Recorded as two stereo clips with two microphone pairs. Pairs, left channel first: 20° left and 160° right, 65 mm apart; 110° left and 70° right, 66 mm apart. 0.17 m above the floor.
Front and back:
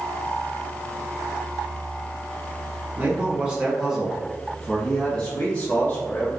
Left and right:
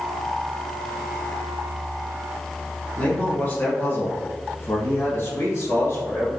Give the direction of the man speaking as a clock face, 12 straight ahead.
7 o'clock.